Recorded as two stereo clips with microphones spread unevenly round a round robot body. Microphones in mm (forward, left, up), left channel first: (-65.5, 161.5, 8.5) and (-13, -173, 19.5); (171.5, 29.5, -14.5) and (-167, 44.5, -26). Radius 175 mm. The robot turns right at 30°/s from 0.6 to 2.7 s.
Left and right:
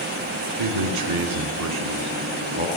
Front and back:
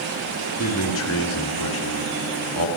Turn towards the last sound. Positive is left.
turn(degrees=-5)